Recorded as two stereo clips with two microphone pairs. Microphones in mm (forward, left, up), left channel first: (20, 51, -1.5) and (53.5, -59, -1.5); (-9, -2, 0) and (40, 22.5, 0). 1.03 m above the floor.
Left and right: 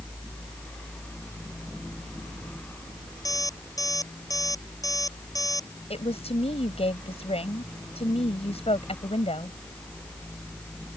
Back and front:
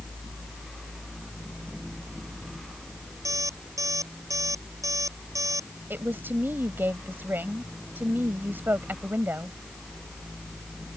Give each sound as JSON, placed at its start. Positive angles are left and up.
{"t": 3.2, "sound": "an alarm clock", "azimuth_deg": 45}
{"t": 5.9, "sound": "a woman speaking", "azimuth_deg": 80}